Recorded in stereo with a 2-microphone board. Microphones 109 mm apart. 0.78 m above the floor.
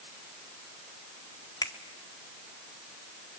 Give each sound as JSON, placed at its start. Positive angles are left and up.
{"t": 1.6, "sound": "a finger snap", "side_deg": 40, "distance_m": 2.0}